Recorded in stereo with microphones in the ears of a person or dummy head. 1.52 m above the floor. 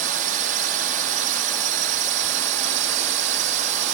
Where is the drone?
50° right (ahead or behind); by 3.9 s 40° right (ahead or behind).